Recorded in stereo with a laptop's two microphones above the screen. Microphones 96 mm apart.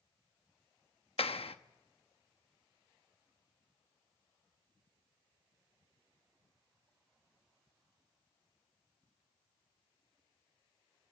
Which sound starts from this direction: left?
A clap, at 1.2 s.